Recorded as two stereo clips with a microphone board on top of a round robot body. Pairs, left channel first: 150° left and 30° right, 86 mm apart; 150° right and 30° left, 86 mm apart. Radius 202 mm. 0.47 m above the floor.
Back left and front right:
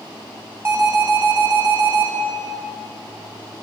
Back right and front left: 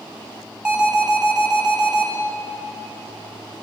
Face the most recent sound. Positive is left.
turn(degrees=-40)